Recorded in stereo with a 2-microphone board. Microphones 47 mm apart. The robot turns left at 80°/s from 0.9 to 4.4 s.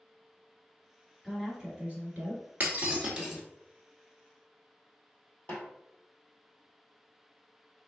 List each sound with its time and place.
1.2 s a woman speaking: straight ahead, 1.6 m; by 2.4 s 95° right, 1.6 m
2.6 s breaking glass: 40° right (ahead or behind), 1.1 m; by 3.4 s centre (ahead or behind), 1.1 m
5.5 s a snare drum: 45° left (ahead or behind), 1.1 m